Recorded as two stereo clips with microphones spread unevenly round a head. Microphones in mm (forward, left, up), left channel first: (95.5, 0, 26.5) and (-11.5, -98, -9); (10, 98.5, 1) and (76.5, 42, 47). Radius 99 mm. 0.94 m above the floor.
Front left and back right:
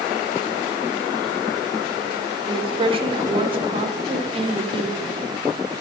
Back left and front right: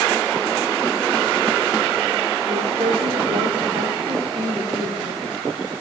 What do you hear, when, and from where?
2.5 s a woman speaking: 100° right, 1.8 m